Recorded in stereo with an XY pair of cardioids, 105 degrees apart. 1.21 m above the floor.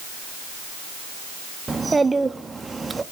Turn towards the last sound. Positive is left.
turn(degrees=-20)